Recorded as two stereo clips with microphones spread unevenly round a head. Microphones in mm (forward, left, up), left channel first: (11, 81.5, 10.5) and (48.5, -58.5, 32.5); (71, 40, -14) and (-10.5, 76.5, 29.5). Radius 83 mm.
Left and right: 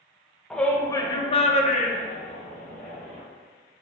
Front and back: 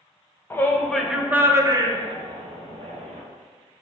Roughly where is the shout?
Ahead left.